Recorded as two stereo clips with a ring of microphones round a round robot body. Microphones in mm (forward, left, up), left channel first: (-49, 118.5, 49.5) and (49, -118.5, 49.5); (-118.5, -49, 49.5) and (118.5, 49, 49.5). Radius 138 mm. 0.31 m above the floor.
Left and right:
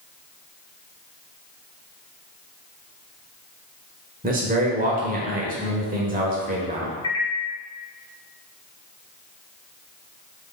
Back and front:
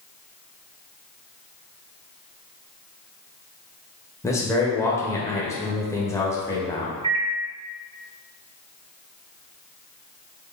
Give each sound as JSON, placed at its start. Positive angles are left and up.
{"t": 4.2, "sound": "a man speaking", "azimuth_deg": -85, "distance_m": 0.9}
{"t": 7.0, "sound": "a microwave", "azimuth_deg": 65, "distance_m": 0.7}